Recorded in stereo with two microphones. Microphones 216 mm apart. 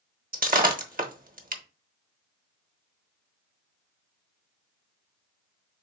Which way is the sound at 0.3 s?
40° right (ahead or behind).